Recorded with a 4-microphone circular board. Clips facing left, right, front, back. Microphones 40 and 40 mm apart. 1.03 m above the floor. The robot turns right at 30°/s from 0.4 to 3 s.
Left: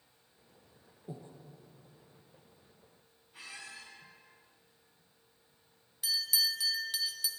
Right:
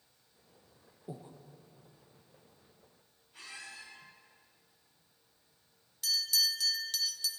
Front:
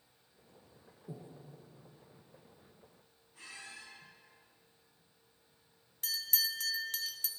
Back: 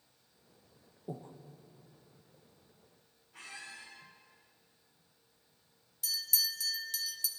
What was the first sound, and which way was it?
Breathing, 165° right.